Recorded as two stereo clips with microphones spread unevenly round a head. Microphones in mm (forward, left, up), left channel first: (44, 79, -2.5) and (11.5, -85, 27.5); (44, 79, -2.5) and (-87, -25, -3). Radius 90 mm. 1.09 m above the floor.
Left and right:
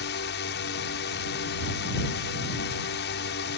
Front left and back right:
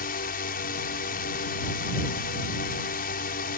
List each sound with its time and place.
0.0 s a drone: 70° left